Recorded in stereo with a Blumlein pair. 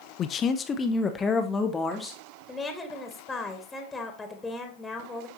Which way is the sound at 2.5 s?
10° left.